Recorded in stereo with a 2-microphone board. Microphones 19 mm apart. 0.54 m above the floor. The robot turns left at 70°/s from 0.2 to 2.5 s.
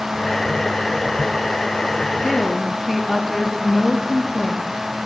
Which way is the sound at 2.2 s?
15° left (ahead or behind).